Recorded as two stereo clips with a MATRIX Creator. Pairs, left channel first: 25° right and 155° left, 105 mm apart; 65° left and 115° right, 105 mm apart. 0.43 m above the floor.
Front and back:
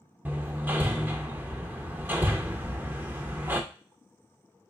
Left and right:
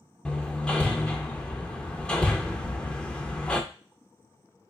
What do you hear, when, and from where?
0.2 s hammering: 130° left, 0.5 m
2.6 s a sliding door: 175° right, 2.5 m